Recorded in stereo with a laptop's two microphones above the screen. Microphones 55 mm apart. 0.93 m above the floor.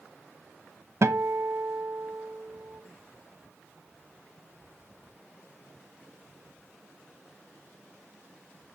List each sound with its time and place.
1.0 s a guitar: 60° right (ahead or behind), 1.0 m